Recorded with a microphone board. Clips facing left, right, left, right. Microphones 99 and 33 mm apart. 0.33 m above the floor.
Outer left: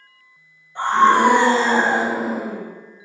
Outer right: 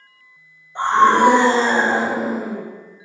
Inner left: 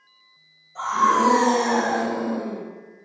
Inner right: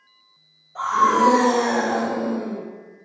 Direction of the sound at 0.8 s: 25° right (ahead or behind).